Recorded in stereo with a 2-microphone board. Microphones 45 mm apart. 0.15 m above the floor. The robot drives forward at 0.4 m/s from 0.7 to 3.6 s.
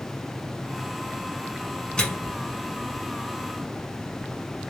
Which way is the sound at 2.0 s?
15° left (ahead or behind).